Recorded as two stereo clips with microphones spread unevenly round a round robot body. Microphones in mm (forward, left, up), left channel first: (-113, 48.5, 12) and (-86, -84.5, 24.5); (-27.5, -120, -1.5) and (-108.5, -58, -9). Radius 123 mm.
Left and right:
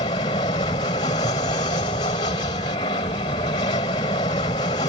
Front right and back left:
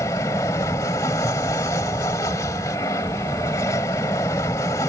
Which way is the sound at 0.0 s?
35° left.